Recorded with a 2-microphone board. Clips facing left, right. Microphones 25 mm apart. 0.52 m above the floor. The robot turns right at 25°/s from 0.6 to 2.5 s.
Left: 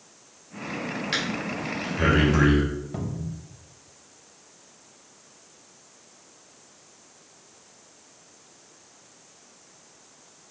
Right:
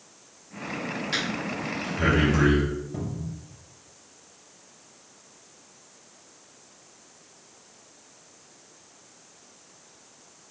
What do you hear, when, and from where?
1.1 s breathing: 25° left (ahead or behind), 1.9 m; by 2.6 s 50° left (ahead or behind), 1.9 m
2.9 s a cupboard door: 50° left (ahead or behind), 0.8 m